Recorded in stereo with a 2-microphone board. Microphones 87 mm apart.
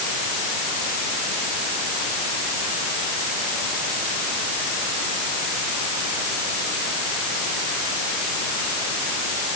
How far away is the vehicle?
No vehicle in this recording.